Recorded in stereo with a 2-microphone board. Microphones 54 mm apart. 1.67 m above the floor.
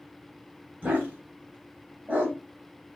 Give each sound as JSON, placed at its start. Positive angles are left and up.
{"t": 0.8, "sound": "a dog barking", "side_deg": -30, "distance_m": 2.5}